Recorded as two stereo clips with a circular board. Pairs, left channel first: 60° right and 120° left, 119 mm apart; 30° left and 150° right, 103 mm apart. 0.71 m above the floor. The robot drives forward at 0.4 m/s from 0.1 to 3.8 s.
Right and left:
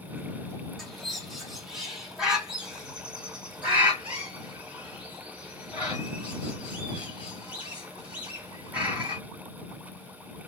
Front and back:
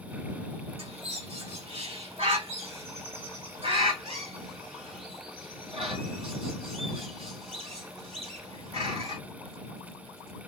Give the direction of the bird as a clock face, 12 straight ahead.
5 o'clock.